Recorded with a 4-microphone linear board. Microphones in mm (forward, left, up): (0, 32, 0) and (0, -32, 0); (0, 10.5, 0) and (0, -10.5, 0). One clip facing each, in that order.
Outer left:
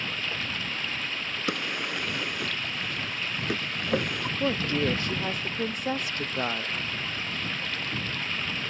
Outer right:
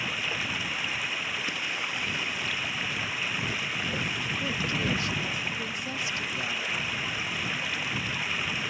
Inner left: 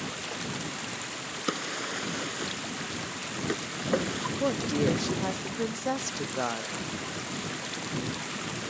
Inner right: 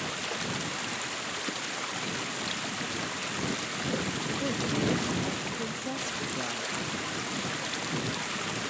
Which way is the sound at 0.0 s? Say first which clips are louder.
Outer right 1 dB, inner right 2 dB; 10° right (ahead or behind).